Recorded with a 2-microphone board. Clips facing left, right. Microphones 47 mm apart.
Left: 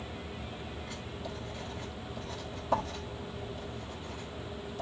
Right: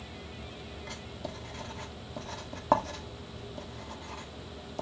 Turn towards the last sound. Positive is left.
turn(degrees=-65)  # may be behind; listen again after turning